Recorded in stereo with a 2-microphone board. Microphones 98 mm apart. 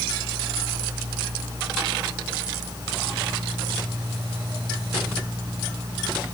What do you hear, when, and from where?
Only background noise.